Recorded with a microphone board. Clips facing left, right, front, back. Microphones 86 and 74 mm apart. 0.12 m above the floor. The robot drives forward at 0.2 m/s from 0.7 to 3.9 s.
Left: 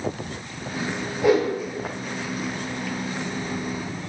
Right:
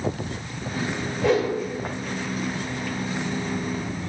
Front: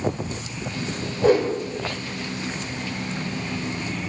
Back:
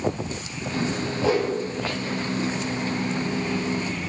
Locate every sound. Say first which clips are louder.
1.2 s a whoosh: left 2 dB, front 5 dB; 15° left, 1.1 m